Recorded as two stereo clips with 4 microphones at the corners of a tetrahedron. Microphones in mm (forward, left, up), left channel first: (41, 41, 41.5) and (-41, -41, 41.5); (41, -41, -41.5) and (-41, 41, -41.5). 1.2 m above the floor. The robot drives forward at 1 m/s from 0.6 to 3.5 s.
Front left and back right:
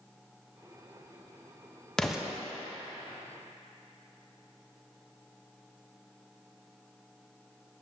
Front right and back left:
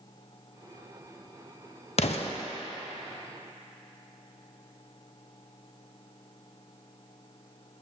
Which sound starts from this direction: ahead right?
An explosion, at 2.0 s.